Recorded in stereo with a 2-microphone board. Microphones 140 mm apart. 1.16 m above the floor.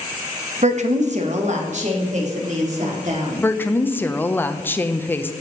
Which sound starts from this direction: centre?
A woman speaking, at 3.4 s.